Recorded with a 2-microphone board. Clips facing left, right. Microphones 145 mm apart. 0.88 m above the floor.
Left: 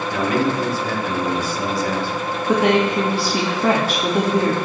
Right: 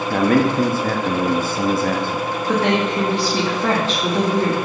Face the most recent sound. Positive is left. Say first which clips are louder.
# left 3 dB
turn(degrees=10)  # may be behind; listen again after turning